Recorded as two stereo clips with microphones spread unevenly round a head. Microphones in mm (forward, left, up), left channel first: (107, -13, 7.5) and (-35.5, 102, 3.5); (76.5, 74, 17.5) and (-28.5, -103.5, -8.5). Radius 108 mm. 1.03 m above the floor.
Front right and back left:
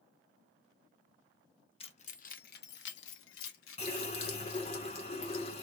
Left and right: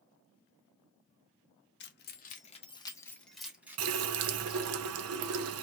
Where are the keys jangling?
25° left, 0.9 m; by 4.8 s 55° right, 1.4 m.